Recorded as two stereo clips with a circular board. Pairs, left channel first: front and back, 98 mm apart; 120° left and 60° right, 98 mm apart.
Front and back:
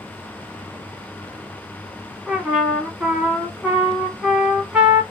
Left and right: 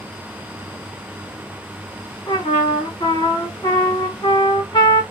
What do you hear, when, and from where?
2.3 s a trumpet: 100° left, 1.2 m